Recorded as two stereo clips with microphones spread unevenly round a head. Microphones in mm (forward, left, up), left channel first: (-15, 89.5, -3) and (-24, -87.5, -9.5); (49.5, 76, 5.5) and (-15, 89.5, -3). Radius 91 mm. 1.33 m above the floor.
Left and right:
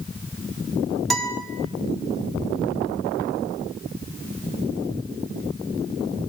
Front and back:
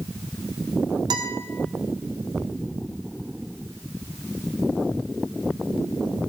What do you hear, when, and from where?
1.1 s a guitar: 175° left, 1.8 m